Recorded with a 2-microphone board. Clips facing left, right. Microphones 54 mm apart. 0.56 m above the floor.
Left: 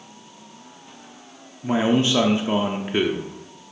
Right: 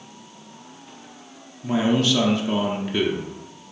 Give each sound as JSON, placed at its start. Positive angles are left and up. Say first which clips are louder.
{"t": 1.6, "sound": "a man speaking", "louder": "left 1 dB", "side_deg": 25, "distance_m": 0.7}